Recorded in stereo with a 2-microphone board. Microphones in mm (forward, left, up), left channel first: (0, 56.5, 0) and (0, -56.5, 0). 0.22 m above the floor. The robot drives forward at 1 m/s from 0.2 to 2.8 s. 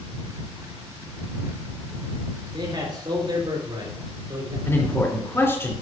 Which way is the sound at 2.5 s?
45° right (ahead or behind).